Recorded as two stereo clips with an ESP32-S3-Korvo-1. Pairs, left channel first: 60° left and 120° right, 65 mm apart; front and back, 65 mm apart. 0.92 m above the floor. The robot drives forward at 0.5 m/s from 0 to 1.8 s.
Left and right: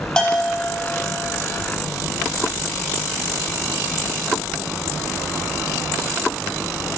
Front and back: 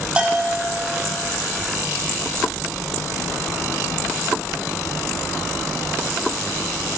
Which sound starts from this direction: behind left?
A bell, at 0.2 s.